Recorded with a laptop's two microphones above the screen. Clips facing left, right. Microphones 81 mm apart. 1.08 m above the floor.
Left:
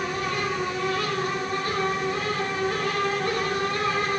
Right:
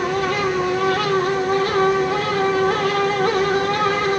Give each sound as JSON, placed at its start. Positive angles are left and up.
{"t": 0.0, "sound": "a fan", "side_deg": -80, "distance_m": 1.1}